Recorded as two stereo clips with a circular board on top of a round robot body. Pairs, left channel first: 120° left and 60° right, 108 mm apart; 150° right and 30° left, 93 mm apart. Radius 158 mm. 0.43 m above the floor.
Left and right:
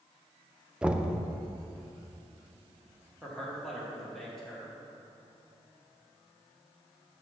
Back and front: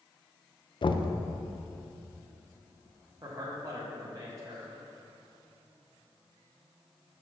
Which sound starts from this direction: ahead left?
A man speaking, at 3.2 s.